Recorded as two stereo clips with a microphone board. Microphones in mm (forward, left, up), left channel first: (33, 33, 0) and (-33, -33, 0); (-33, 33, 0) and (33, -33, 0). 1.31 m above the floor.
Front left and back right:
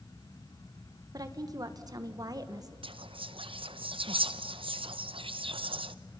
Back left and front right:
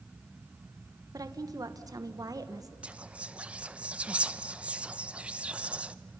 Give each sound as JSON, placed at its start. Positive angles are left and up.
{"t": 1.1, "sound": "a woman speaking", "azimuth_deg": -90, "distance_m": 1.2}
{"t": 2.8, "sound": "whispering", "azimuth_deg": -120, "distance_m": 0.8}